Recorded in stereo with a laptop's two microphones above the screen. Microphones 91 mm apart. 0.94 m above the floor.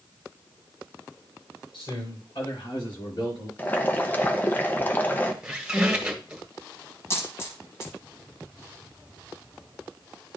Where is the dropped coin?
30° left (ahead or behind), 1.3 m.